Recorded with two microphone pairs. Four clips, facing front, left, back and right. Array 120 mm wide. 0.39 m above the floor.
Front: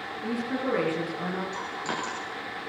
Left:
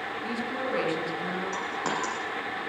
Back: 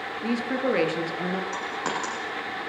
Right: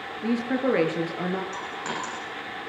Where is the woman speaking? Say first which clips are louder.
Right 9 dB, back 4 dB; 120° right, 6 m.